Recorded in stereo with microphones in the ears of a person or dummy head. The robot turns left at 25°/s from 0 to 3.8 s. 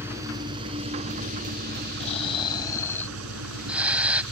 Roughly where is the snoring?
Ahead left.